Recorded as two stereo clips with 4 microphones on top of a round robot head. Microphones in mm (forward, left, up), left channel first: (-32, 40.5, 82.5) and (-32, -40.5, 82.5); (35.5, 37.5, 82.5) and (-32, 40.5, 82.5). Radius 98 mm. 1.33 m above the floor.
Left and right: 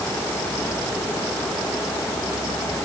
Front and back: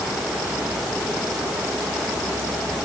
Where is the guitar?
I don't hear a guitar.